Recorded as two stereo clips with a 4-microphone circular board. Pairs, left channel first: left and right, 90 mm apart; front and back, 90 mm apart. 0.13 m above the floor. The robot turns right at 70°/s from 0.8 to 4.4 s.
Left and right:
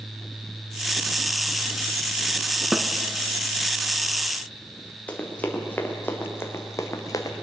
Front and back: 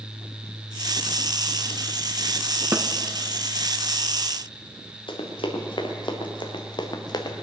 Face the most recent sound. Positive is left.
turn(degrees=40)